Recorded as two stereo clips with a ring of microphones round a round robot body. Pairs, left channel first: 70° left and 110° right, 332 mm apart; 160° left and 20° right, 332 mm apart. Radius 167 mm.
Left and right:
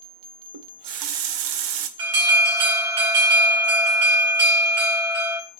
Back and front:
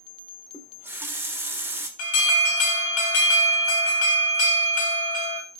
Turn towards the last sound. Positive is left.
turn(degrees=-165)